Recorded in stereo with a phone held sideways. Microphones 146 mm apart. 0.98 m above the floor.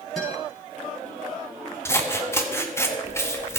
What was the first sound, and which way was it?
A guitar, centre (ahead or behind).